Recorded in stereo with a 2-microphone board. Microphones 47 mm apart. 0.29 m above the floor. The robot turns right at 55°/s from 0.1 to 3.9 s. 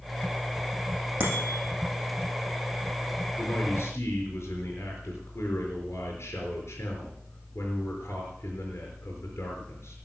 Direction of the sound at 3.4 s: 35° left (ahead or behind).